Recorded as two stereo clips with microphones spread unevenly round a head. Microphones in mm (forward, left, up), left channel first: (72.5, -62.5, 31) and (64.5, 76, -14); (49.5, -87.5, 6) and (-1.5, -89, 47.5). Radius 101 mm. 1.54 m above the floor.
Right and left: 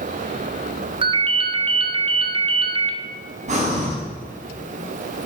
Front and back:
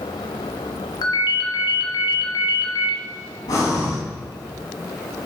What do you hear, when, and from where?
1.0 s a ringtone: 35° left, 1.5 m
3.5 s breathing: 55° left, 5 m